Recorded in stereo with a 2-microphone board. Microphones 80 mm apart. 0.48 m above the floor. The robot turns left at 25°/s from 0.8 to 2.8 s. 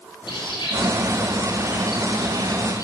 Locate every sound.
0.3 s a bird: 100° left, 6 m; by 2.8 s 50° left, 6 m